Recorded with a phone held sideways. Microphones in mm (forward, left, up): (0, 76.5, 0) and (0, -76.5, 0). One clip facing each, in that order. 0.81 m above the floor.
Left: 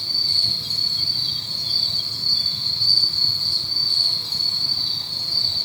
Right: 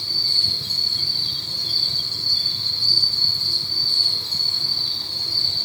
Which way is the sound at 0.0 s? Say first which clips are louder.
Right 1 dB; 70° right (ahead or behind).